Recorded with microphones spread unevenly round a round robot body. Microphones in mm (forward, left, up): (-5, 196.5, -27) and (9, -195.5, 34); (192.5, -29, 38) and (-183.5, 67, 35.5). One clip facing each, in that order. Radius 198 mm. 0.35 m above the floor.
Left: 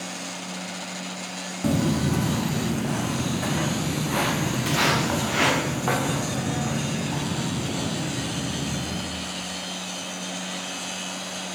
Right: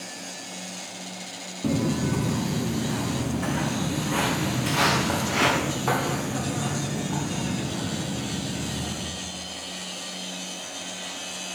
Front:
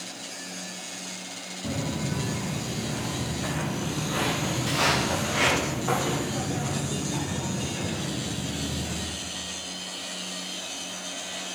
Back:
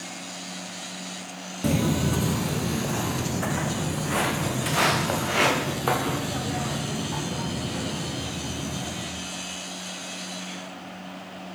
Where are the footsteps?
170° left, 0.6 m; by 9.0 s 175° right, 4 m.